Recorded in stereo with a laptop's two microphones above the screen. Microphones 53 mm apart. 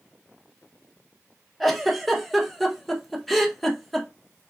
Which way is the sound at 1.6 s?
5° left (ahead or behind).